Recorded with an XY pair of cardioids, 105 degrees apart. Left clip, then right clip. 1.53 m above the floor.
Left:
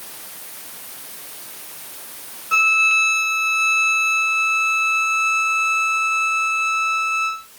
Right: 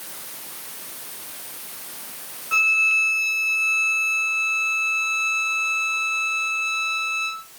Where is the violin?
15° left, 1.8 m.